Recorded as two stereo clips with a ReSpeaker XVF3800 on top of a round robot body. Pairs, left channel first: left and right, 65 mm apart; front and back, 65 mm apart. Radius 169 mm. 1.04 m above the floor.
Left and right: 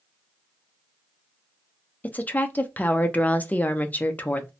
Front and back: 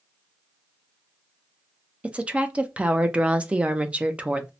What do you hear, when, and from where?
2.0 s a woman speaking: 125° left, 0.6 m